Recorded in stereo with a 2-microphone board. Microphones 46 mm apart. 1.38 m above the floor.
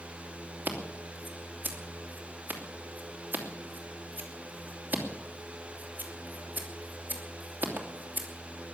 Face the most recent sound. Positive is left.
turn(degrees=-45)  # may be behind; listen again after turning